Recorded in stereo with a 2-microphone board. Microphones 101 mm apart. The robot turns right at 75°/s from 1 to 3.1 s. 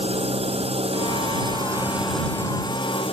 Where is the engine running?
85° right; by 3.1 s 75° left.